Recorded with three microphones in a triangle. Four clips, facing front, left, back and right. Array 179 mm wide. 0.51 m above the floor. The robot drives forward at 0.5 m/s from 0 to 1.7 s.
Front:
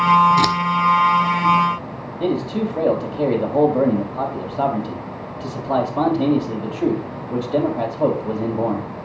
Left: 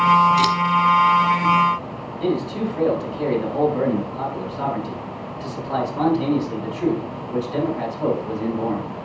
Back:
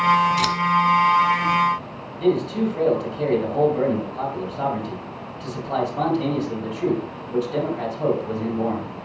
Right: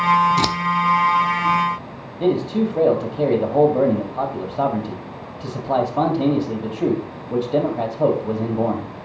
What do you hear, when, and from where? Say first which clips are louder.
0.4 s scissors: left 2 dB, front 5 dB; 60° right, 1.0 m; by 0.6 s 65° right, 1.0 m
2.2 s a man speaking: right 4 dB, back 1 dB; 65° right, 2.5 m